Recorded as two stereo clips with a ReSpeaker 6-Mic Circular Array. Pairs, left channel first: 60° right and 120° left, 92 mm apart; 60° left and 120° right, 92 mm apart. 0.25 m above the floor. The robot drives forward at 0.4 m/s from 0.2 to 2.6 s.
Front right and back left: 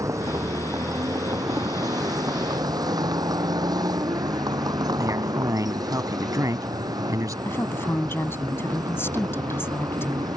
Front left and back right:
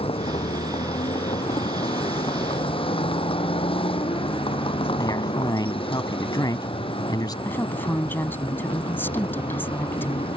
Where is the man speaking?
85° left.